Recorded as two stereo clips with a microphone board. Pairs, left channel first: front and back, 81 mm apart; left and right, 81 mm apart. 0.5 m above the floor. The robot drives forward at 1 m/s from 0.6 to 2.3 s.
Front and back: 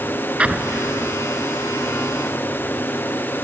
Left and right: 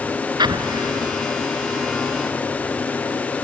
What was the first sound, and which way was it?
An explosion, 105° right.